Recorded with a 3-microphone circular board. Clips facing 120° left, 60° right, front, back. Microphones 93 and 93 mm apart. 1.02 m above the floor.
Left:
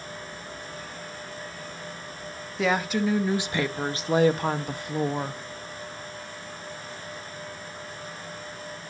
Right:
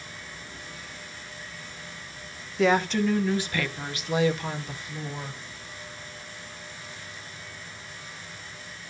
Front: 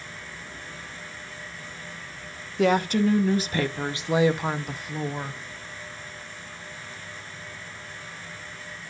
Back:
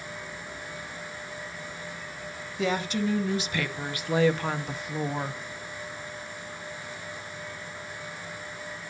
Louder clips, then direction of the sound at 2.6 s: Right 2 dB, front 6 dB; 30° left.